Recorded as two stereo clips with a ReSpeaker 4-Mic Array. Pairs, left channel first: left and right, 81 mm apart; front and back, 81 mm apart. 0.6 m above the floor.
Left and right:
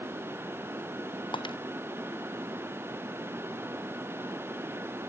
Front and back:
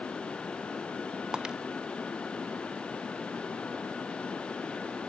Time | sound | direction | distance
1.3 | breaking glass | 100° left | ?